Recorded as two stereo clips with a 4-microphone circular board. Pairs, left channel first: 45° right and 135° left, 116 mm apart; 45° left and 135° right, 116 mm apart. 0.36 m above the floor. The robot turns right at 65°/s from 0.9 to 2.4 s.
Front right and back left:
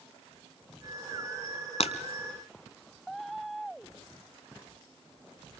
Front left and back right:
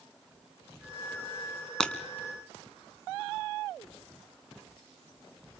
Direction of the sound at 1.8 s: 35° right.